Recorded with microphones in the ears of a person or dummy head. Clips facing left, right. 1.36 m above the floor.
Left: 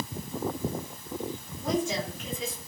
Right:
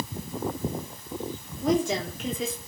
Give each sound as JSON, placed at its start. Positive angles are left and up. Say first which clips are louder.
{"t": 1.6, "sound": "a woman speaking", "louder": "right 4 dB", "side_deg": -55, "distance_m": 3.0}